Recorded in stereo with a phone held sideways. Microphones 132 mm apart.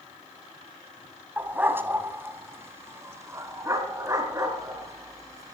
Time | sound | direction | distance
1.4 | a dog barking | 15° right (ahead or behind) | 1.8 m